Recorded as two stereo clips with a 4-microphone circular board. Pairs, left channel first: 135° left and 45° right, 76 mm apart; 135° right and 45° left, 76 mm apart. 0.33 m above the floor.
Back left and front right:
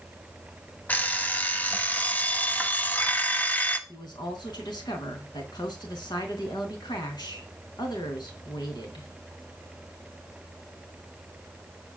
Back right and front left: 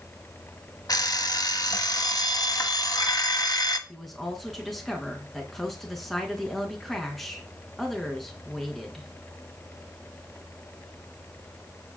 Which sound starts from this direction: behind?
An alarm clock, at 0.9 s.